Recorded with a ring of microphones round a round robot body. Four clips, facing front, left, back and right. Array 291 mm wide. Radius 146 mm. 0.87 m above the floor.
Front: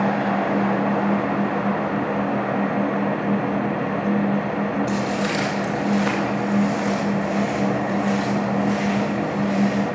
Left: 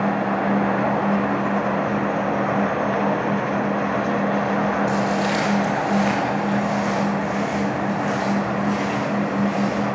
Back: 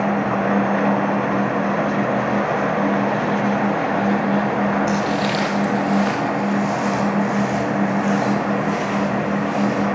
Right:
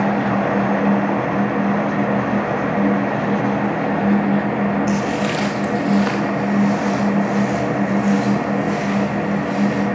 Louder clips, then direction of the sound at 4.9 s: Right 1 dB, back 3 dB; 130° right.